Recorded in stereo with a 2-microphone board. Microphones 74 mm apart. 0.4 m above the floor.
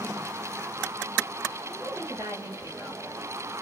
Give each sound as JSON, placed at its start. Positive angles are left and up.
{"t": 1.7, "sound": "a woman speaking", "side_deg": -40, "distance_m": 1.3}